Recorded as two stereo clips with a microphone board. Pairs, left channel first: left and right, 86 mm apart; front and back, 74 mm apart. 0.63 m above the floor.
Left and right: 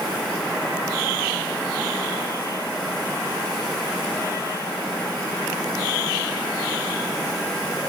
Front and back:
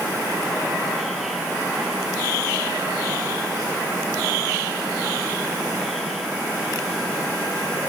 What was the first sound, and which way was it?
Only background noise.